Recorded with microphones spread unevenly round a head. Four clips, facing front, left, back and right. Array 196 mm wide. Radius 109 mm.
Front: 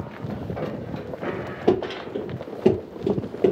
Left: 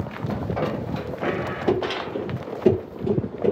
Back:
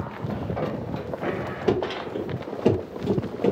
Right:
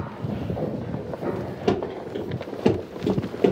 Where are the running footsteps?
10° left, 2 m; by 3.5 s 40° right, 1.7 m.